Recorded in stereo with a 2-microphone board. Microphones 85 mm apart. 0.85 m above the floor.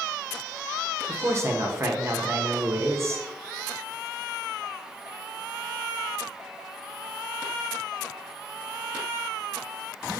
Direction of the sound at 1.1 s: 35° right (ahead or behind).